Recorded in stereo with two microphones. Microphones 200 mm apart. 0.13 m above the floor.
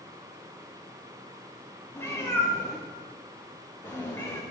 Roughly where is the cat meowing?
Centre.